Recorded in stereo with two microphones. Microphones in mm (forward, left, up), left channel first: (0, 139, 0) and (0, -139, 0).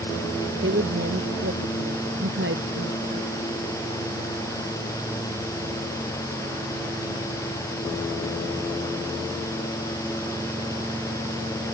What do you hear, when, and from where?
0.6 s a woman speaking: 45° right (ahead or behind)